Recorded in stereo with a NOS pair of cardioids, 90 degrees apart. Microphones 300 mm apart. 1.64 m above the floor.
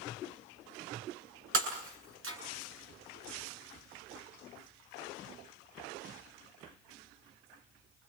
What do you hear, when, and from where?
1.5 s breaking glass: 45° right, 7.5 m